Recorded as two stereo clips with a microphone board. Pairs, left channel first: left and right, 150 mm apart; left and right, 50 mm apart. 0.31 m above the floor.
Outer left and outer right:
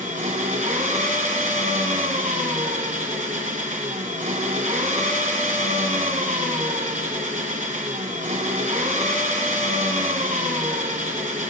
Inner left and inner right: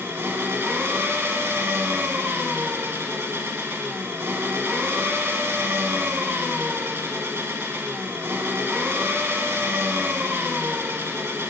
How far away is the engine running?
About 1.2 m.